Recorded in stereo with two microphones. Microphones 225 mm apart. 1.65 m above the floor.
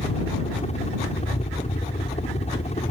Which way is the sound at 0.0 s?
30° left (ahead or behind).